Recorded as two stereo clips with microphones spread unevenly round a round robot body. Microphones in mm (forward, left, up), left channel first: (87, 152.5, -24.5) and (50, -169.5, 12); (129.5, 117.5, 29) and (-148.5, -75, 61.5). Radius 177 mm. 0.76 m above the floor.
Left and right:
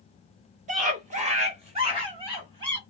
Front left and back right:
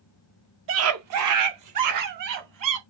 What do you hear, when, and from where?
0.7 s a scream: 155° right, 0.7 m; by 2.8 s 175° right, 1.9 m